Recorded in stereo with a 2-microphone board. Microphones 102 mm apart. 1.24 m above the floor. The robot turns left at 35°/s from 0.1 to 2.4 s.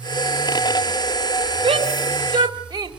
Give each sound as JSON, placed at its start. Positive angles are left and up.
{"t": 1.6, "sound": "a shout", "side_deg": -65, "distance_m": 5.0}